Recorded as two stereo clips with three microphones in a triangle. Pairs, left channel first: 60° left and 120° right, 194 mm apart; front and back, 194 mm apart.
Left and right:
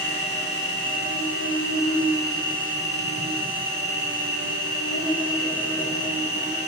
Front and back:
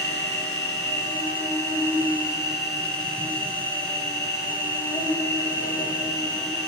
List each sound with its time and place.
0.0 s an insect: 75° left, 7.5 m